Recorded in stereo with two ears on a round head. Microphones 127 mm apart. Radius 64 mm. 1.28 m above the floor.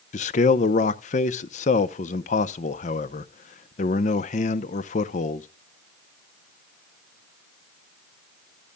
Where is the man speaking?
50° left (ahead or behind), 0.7 m.